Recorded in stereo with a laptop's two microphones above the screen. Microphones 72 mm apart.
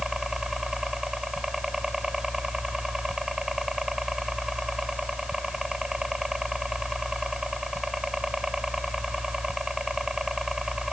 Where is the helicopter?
5° right (ahead or behind).